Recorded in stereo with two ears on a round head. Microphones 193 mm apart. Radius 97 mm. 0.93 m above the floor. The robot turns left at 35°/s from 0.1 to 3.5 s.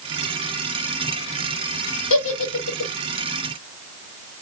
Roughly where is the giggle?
Left.